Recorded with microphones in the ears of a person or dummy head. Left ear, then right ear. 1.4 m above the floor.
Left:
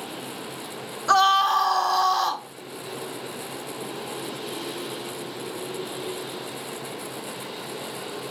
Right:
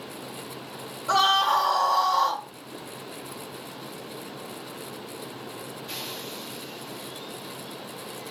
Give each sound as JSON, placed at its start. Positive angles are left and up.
{"t": 1.1, "sound": "a scream", "side_deg": 50, "distance_m": 1.0}